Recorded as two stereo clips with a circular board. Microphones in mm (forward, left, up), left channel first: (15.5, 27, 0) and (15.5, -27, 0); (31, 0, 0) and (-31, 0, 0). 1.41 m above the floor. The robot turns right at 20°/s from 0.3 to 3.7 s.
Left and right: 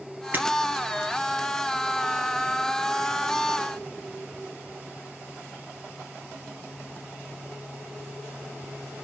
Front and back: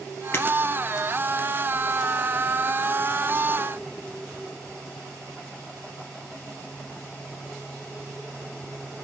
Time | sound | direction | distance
0.3 | breaking glass | 40° right | 2.5 m